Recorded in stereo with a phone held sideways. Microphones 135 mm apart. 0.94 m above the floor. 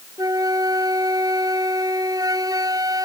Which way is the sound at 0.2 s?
30° right (ahead or behind).